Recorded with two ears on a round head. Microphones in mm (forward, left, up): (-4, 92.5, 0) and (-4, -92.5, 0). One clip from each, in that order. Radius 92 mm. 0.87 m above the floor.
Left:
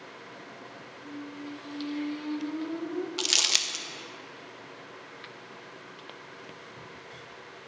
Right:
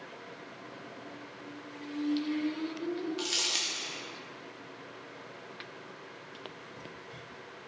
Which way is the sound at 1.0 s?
65° left (ahead or behind).